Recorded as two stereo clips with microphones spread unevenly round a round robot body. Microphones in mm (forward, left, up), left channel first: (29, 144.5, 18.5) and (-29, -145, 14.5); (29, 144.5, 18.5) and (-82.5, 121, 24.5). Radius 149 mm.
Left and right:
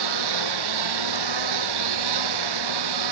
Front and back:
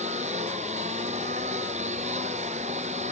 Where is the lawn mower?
100° right.